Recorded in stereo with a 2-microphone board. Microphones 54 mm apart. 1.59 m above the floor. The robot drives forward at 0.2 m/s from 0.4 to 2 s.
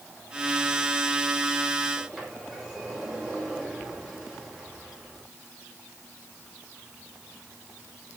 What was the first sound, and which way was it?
A sliding door, 10° right (ahead or behind).